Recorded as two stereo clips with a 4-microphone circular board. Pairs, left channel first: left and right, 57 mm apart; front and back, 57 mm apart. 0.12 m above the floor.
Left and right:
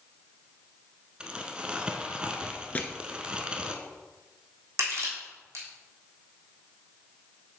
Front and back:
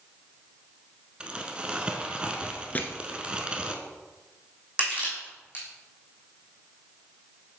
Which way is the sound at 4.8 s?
120° right.